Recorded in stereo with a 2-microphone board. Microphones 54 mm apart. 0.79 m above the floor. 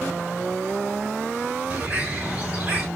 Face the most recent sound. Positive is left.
turn(degrees=-25)  # may be behind; listen again after turning